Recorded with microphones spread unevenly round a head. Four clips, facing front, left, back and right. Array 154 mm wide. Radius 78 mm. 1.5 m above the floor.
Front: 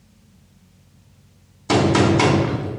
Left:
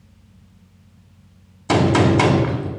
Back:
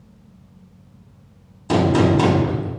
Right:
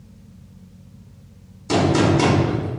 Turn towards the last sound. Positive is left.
turn(degrees=70)